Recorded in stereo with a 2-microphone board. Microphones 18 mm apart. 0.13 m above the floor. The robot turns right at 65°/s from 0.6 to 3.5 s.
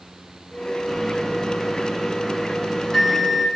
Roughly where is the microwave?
Centre.